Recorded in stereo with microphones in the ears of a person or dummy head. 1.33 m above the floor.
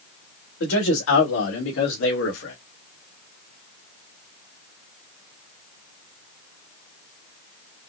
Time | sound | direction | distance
0.6 | a man speaking | 70° left (ahead or behind) | 2.5 m